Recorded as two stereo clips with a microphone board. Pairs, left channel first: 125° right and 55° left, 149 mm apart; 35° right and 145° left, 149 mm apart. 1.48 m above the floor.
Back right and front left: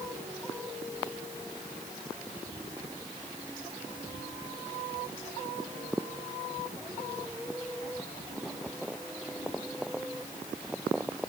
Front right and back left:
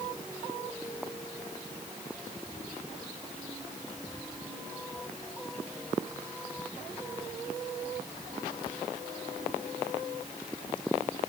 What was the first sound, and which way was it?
Only background noise.